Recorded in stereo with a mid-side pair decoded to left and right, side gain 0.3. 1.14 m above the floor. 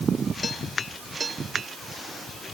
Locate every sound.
Only background noise.